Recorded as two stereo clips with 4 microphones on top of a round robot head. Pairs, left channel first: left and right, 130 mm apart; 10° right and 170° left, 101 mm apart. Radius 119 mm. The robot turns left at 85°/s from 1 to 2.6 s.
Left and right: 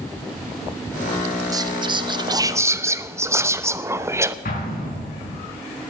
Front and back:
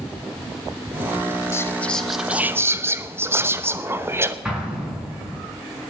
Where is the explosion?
90° left, 5.5 m.